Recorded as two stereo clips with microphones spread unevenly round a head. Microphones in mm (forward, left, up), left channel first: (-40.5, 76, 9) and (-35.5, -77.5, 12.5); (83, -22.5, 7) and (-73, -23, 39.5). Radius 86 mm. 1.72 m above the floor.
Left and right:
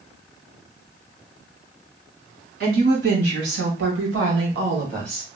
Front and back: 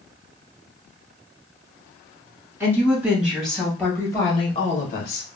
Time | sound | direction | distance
2.6 | a woman speaking | 105° right | 2.5 m